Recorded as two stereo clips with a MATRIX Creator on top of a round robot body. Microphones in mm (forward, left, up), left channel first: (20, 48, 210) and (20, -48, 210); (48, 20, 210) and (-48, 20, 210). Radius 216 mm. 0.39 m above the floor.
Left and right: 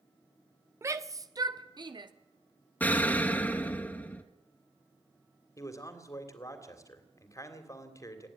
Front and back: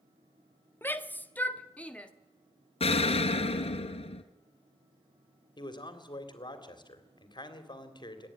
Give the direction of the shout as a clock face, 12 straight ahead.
2 o'clock.